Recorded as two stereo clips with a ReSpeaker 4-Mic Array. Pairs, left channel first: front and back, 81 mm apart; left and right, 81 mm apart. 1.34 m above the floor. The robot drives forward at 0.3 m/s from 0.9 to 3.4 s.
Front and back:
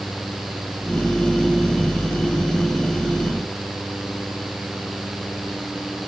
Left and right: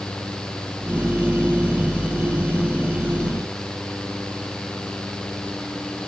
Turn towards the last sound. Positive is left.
No sound to turn to.